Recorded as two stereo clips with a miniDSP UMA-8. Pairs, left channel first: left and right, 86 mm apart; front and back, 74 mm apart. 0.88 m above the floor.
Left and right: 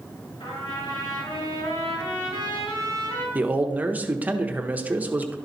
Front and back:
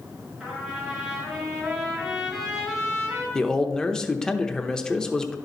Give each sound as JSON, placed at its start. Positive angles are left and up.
{"t": 0.4, "sound": "a trumpet", "azimuth_deg": 90, "distance_m": 4.5}
{"t": 3.4, "sound": "a man speaking", "azimuth_deg": -60, "distance_m": 0.8}